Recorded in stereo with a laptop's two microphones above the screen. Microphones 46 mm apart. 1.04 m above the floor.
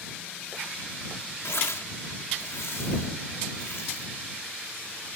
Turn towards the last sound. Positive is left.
turn(degrees=85)